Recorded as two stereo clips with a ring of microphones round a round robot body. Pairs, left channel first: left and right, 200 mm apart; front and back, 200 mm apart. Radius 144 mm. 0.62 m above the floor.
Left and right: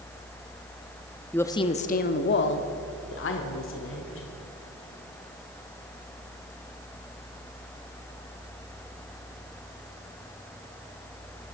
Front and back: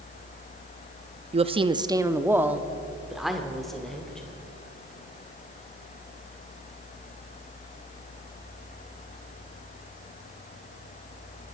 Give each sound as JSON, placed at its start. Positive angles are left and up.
{"t": 1.3, "sound": "a woman speaking", "azimuth_deg": 165, "distance_m": 0.7}